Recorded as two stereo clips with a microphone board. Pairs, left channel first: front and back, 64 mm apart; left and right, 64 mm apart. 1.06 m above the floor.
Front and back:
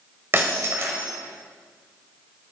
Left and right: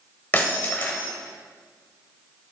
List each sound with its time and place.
0.3 s breaking glass: 140° left, 1.3 m